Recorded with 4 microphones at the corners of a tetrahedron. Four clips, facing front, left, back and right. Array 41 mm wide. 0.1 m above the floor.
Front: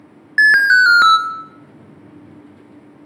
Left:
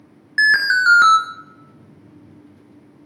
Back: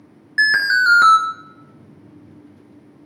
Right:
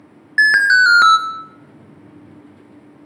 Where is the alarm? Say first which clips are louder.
Right 4 dB, front 5 dB; 20° right, 1.0 m.